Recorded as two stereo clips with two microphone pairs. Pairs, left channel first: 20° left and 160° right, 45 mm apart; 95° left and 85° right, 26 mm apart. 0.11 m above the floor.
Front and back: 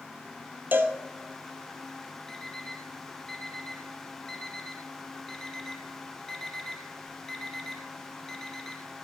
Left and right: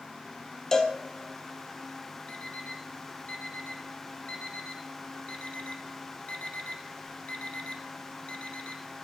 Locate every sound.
0.7 s a cowbell: 165° left, 1.3 m
2.3 s an alarm clock: 100° left, 1.8 m